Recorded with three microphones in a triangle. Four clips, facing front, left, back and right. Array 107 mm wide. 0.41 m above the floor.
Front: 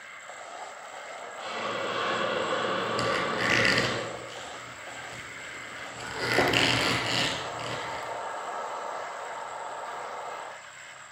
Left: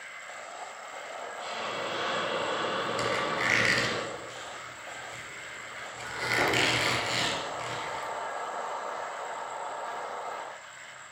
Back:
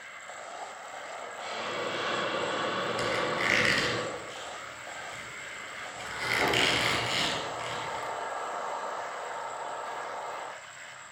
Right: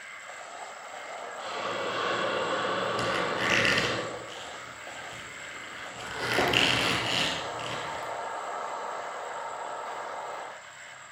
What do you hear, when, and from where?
1.4 s a hiss: 30° right, 9 m
3.0 s a squeak: 15° right, 4 m